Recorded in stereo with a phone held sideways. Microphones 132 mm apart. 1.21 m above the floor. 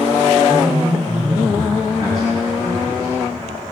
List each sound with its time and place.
0.5 s a man speaking: 35° right (ahead or behind), 7.5 m